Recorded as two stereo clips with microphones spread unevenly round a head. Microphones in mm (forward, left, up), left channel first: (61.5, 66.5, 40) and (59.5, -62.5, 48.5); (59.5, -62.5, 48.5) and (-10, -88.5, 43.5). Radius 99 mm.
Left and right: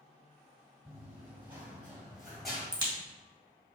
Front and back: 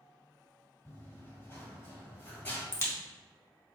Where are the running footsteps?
25° right, 1.9 m; by 2.6 s straight ahead, 1.2 m.